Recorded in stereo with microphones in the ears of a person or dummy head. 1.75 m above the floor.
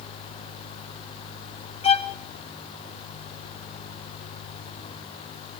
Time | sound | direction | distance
1.8 | a violin | 35° left (ahead or behind) | 0.8 m